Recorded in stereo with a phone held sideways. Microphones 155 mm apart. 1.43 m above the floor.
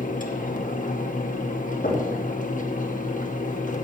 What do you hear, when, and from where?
0.0 s a fan: 60° left (ahead or behind), 1.0 m
1.8 s knocking: 65° left (ahead or behind), 2.5 m